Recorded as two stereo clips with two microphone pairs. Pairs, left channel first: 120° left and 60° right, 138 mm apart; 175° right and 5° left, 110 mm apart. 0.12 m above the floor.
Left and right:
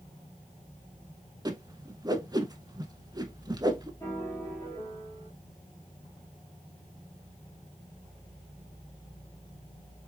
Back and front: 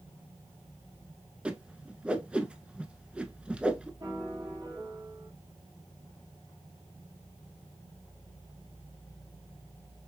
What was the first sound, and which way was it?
A whoosh, 60° right.